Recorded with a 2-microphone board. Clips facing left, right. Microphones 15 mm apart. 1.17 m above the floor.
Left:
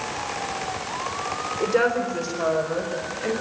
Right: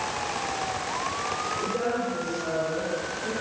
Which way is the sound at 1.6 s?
85° left.